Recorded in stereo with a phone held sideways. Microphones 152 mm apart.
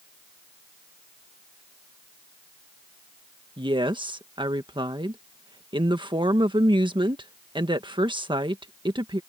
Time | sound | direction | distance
3.6 | a woman speaking | 30° right (ahead or behind) | ?